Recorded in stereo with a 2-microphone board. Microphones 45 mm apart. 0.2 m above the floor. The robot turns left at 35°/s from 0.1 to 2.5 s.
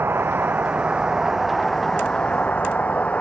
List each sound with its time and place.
0.0 s a vehicle: 125° right; by 3.2 s 150° left